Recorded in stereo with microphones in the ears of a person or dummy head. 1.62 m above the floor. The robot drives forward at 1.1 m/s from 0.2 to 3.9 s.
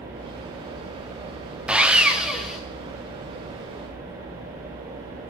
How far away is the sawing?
About 1.1 m.